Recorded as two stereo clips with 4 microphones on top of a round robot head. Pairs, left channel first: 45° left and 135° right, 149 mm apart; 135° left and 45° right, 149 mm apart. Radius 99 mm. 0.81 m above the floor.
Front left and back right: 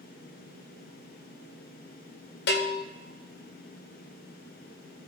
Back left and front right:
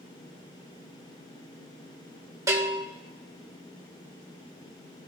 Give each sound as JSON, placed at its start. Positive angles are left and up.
{"t": 2.5, "sound": "a bell", "azimuth_deg": 25, "distance_m": 1.6}